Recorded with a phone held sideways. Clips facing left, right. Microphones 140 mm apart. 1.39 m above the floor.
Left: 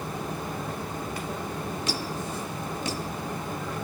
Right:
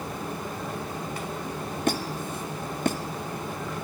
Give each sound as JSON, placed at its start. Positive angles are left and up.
{"t": 1.9, "sound": "a squeak", "side_deg": -55, "distance_m": 0.8}